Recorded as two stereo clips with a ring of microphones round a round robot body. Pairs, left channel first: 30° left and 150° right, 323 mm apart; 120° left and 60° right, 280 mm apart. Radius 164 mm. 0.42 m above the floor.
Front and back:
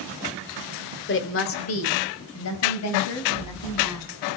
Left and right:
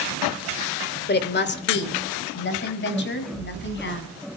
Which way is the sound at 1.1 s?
75° left.